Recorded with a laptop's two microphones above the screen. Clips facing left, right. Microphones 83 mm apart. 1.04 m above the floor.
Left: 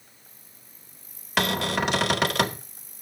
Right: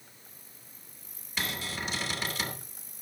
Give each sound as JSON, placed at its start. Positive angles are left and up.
{"t": 1.4, "sound": "a cupboard door", "side_deg": 80, "distance_m": 0.8}